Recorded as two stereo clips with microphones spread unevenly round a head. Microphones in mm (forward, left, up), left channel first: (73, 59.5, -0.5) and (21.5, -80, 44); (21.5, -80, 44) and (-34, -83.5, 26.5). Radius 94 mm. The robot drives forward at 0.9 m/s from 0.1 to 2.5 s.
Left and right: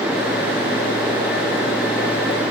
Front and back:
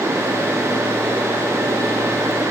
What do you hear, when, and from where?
Only background noise.